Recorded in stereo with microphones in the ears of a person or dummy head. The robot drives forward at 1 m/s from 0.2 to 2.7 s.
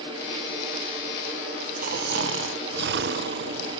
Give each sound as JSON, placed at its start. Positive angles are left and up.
{"t": 1.8, "sound": "snoring", "side_deg": -45, "distance_m": 1.0}